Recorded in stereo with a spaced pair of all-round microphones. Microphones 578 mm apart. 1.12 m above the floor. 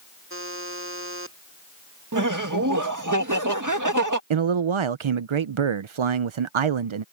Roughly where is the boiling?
I don't hear boiling.